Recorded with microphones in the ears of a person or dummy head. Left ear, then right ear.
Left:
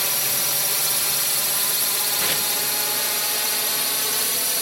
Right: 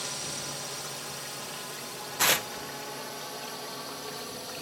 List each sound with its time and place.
0.0 s a drone: 65° left (ahead or behind)
2.2 s tearing paper: 30° right (ahead or behind)